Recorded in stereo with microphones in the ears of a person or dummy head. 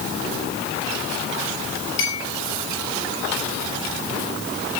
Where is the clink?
75° left (ahead or behind), 4.5 m.